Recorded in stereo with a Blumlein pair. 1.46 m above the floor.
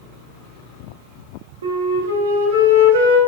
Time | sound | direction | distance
1.6 | a flute | 65° right | 0.7 m